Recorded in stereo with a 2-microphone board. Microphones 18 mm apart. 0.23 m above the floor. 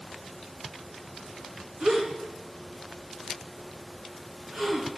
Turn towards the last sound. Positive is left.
turn(degrees=-55)  # may be behind; listen again after turning